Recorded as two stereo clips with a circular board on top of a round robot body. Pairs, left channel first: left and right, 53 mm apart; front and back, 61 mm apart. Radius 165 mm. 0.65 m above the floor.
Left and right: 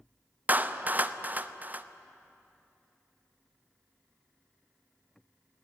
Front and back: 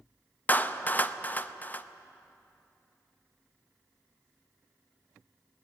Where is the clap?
50° right, 1.0 m.